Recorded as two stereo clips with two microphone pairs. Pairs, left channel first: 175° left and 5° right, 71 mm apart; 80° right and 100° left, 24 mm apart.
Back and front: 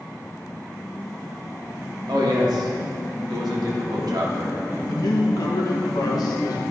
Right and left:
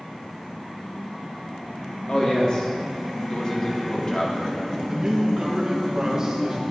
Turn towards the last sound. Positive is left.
turn(degrees=160)